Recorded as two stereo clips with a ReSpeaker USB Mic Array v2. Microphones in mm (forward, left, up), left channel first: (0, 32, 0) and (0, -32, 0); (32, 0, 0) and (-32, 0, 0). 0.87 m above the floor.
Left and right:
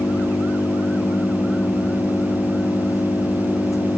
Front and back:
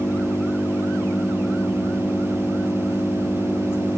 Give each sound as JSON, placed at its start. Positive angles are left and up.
{"t": 0.0, "sound": "an engine running", "azimuth_deg": 50}